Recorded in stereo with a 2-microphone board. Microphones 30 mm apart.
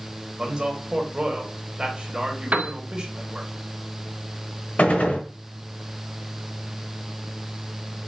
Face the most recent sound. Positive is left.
turn(degrees=55)  # may be behind; listen again after turning